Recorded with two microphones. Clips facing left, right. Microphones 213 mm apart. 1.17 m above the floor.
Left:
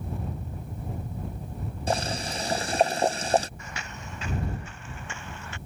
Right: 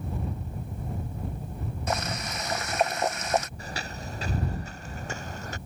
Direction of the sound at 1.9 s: 30° left (ahead or behind).